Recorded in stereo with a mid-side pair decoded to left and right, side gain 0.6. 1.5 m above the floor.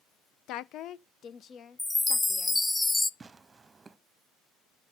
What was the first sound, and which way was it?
A woman speaking, 65° left.